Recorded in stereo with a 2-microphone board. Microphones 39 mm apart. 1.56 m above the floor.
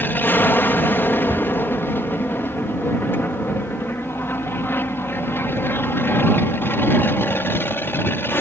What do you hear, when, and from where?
0.0 s an aircraft: 55° left (ahead or behind); by 8.4 s 65° left (ahead or behind)
1.3 s a cupboard door: 60° right (ahead or behind)